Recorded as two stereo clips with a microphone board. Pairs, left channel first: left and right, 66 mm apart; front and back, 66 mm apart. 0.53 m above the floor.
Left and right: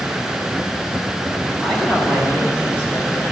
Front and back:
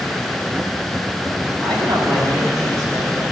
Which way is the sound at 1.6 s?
170° left.